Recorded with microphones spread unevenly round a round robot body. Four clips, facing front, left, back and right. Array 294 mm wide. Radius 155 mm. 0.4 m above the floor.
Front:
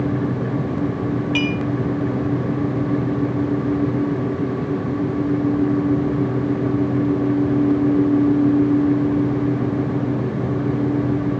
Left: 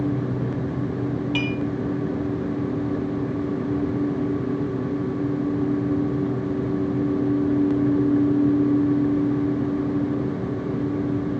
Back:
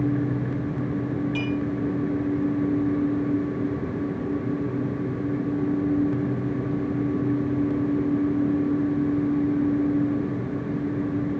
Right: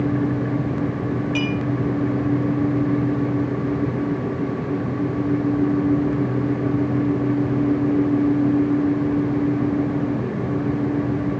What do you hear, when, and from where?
1.4 s dishes clattering: 25° left, 7 m